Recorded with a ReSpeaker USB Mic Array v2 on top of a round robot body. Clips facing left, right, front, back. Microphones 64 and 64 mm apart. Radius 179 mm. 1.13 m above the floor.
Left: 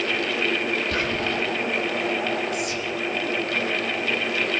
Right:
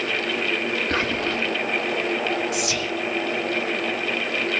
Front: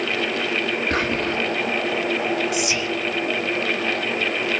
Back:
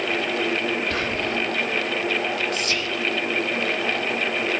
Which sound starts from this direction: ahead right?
Whispering, at 0.9 s.